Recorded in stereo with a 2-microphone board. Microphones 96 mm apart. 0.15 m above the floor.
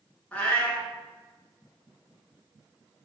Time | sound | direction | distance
0.3 | a cat meowing | 15° left (ahead or behind) | 1.0 m